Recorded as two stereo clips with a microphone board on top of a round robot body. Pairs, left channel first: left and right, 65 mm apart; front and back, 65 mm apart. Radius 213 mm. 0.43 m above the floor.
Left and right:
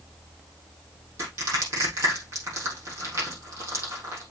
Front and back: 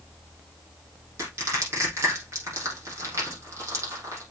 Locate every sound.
1.2 s crushing: 135° right, 5 m